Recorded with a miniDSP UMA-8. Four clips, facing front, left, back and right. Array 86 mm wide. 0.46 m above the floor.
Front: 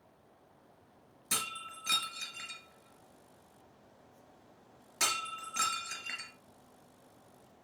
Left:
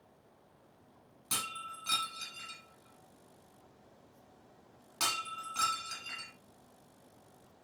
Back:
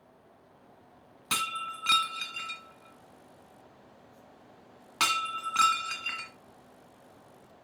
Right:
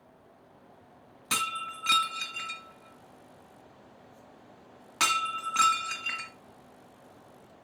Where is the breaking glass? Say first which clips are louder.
Right 9 dB, back 8 dB; 145° right, 1.8 m.